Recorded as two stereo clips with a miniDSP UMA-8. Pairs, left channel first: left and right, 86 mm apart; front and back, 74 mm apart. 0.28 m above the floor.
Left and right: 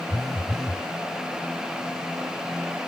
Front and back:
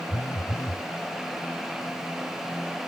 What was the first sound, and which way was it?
A phone buzzing, straight ahead.